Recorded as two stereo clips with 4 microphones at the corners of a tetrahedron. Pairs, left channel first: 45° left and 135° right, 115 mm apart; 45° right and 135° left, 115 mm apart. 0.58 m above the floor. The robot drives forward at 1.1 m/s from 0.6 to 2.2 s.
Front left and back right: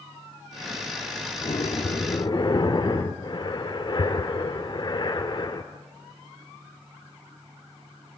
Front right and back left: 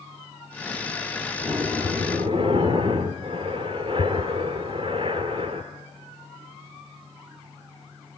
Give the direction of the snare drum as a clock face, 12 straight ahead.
I don't hear a snare drum.